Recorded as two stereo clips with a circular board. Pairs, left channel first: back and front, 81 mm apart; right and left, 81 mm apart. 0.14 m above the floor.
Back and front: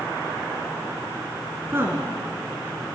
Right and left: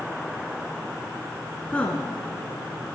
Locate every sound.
1.7 s a woman speaking: 25° right, 1.2 m